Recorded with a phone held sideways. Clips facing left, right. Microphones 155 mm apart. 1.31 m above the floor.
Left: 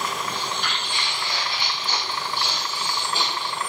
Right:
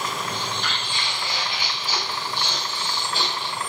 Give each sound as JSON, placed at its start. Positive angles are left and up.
{"t": 0.3, "sound": "footsteps", "side_deg": -40, "distance_m": 1.8}